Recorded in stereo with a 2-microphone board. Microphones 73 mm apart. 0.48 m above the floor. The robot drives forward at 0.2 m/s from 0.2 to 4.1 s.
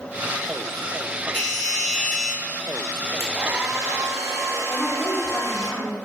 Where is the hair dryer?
55° right (ahead or behind), 0.7 m; by 5.7 s 45° right (ahead or behind), 0.8 m.